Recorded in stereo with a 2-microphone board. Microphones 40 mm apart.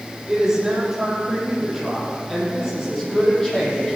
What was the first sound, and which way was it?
A woman speaking, 15° right (ahead or behind).